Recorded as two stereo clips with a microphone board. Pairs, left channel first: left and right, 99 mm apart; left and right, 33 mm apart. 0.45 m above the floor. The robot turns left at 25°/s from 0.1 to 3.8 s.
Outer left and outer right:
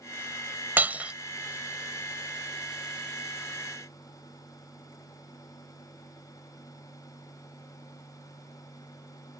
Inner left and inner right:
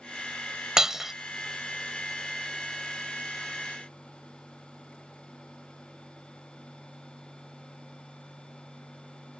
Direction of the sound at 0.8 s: 20° right (ahead or behind).